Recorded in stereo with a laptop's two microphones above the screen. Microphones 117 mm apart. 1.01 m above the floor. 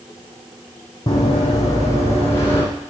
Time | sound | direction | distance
1.1 | running footsteps | 35° left (ahead or behind) | 2.5 m